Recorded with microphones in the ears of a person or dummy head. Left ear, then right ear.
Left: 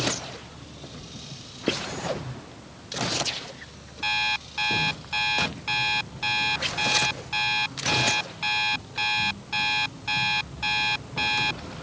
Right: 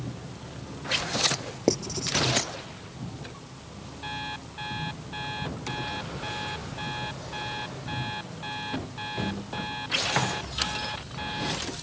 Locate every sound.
1.7 s writing: 50° right (ahead or behind)
4.0 s an alarm clock: 70° left (ahead or behind)